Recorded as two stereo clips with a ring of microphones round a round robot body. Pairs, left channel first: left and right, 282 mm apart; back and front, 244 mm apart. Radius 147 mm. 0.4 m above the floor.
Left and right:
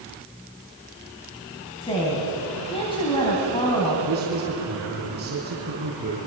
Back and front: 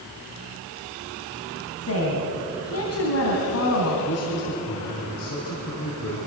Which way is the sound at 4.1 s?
145° right.